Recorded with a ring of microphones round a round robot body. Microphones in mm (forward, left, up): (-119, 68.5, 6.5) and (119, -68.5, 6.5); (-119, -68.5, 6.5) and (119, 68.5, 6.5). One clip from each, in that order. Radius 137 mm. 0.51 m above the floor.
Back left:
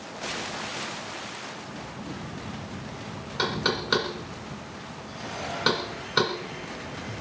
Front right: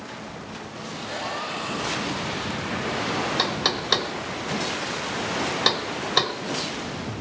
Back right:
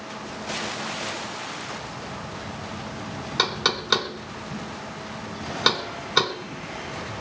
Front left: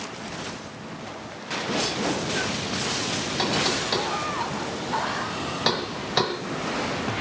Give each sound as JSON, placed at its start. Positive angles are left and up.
{"t": 3.4, "sound": "knocking", "azimuth_deg": -80, "distance_m": 1.5}